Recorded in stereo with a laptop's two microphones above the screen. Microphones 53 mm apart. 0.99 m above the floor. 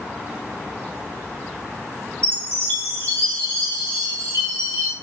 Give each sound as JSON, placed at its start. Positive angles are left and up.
{"t": 2.2, "sound": "a chime", "side_deg": -75, "distance_m": 1.5}